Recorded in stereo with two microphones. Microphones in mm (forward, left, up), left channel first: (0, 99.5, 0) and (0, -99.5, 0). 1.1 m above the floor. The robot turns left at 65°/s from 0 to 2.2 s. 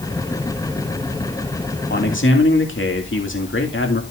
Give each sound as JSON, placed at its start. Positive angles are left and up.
{"t": 1.9, "sound": "a man speaking", "side_deg": 50, "distance_m": 2.5}